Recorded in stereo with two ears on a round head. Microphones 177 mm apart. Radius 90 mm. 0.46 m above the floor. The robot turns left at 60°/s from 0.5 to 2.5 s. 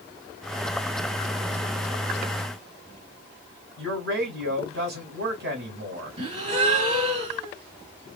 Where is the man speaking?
65° right (ahead or behind), 3 m.